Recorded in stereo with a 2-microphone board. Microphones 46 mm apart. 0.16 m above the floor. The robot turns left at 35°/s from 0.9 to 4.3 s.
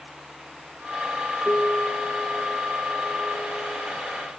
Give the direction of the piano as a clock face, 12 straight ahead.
7 o'clock.